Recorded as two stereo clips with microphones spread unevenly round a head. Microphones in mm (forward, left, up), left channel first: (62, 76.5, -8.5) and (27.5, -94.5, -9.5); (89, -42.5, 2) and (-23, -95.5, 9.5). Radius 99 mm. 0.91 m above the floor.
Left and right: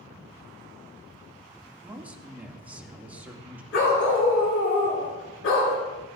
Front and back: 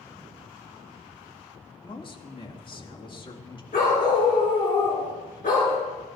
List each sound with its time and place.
1.8 s a man speaking: 20° right, 2 m
3.7 s a dog barking: 80° left, 5 m